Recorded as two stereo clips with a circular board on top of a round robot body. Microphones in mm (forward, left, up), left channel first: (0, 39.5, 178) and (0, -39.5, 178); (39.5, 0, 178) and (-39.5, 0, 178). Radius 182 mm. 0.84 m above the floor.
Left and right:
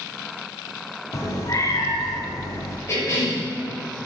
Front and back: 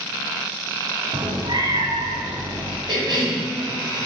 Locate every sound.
1.1 s a cat meowing: 145° left, 1.2 m
2.9 s a cough: 145° left, 5 m